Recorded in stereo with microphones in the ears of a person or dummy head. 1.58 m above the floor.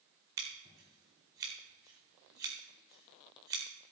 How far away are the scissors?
About 1.3 m.